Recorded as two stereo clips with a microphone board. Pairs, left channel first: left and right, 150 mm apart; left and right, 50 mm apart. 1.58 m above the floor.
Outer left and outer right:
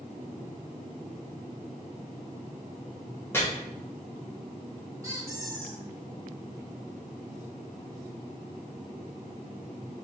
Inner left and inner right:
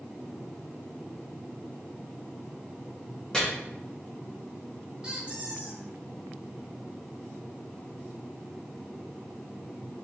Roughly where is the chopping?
Centre.